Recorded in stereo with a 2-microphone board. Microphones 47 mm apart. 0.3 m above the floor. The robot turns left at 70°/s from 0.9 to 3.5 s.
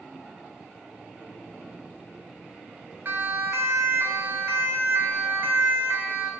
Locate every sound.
3.0 s a siren: 45° right (ahead or behind), 3.5 m; by 6.3 s 50° right (ahead or behind), 5 m